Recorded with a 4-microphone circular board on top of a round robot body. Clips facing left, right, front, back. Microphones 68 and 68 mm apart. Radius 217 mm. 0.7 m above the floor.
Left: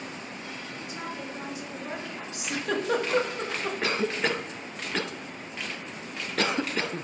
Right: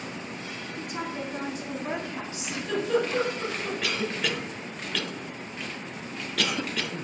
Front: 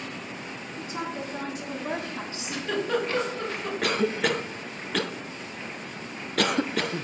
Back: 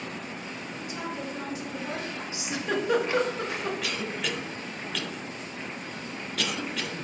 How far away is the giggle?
About 2.0 m.